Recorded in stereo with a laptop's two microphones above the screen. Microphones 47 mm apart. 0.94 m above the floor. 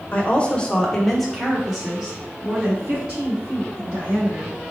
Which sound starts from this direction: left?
A woman speaking, at 0.1 s.